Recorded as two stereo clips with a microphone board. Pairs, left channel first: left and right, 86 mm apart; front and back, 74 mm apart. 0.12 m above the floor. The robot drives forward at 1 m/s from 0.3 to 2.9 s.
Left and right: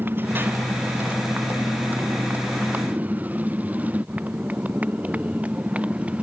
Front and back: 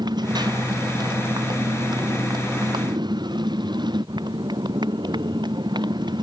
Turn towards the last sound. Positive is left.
turn(degrees=-165)